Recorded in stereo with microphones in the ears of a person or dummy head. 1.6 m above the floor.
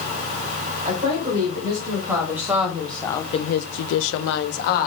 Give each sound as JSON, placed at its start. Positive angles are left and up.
{"t": 0.8, "sound": "a woman speaking", "side_deg": -20, "distance_m": 2.5}